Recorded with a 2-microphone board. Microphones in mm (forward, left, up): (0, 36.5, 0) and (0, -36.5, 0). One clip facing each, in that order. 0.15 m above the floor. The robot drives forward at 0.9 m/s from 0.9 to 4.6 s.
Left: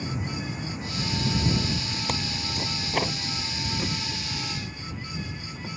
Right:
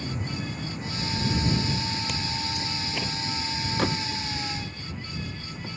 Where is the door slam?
65° right (ahead or behind).